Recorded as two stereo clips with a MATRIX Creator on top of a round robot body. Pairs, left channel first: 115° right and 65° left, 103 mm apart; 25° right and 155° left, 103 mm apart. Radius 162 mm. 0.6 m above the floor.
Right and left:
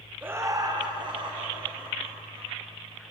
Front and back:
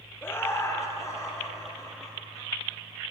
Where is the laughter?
15° left, 0.8 m; by 2.5 s 40° left, 2.5 m.